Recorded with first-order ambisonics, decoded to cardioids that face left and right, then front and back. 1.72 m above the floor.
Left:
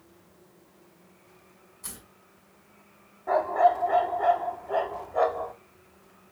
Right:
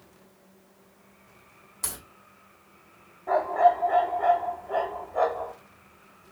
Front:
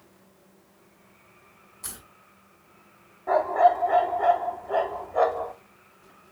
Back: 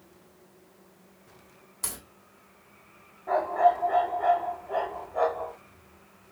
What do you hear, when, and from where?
1.8 s a crack: 125° right, 3 m
3.3 s a dog barking: 15° left, 1.3 m